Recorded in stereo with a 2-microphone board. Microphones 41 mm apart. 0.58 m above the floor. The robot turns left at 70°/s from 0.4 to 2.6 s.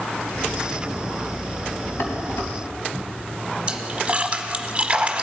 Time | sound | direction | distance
2.0 | dishes clattering | 70° left (ahead or behind) | 2.5 m
3.7 | a splash | 25° right (ahead or behind) | 1.0 m